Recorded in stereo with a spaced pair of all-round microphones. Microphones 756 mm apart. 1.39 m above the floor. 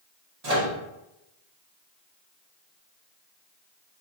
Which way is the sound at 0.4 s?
55° right (ahead or behind).